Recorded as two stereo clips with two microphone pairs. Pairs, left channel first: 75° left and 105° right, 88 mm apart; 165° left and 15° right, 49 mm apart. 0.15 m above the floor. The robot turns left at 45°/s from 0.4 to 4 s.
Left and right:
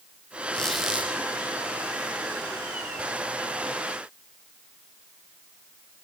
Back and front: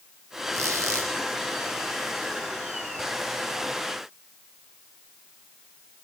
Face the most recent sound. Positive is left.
turn(degrees=-165)